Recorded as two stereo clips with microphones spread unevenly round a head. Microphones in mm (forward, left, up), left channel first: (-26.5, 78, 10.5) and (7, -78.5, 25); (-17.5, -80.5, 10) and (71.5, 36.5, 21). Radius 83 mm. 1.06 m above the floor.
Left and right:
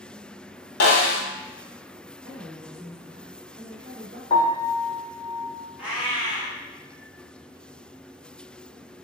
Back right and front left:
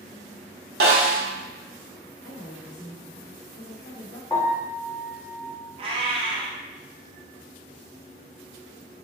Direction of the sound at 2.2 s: 130° right.